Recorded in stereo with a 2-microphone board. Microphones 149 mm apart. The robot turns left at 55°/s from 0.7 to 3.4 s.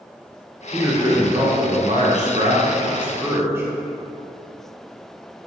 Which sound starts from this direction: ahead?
A man speaking, at 0.7 s.